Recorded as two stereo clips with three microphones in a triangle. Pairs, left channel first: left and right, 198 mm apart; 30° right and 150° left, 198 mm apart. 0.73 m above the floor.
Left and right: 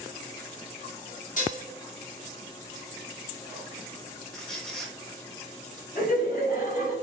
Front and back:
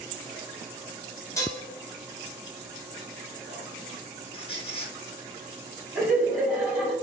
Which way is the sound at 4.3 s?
5° left.